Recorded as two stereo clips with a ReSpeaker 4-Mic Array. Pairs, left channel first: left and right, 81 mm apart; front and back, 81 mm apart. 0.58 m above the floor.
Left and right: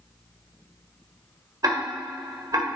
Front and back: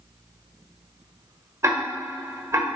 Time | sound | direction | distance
1.6 | ticking | 130° right | 1.5 m